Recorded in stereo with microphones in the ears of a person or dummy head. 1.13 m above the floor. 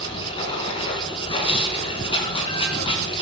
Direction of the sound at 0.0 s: 35° left (ahead or behind).